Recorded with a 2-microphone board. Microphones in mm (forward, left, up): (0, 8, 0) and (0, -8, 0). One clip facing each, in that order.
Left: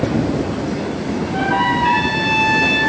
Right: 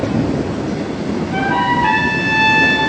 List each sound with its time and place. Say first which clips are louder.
1.3 s a trumpet: right 1 dB; 40° right (ahead or behind), 2.5 m